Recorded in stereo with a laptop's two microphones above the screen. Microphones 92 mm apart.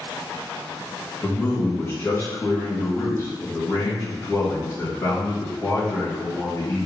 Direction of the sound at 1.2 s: 25° left (ahead or behind).